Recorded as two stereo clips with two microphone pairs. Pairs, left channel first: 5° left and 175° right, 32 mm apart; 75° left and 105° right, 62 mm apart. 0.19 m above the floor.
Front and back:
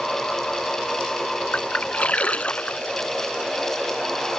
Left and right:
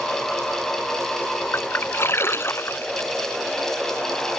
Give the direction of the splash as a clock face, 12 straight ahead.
11 o'clock.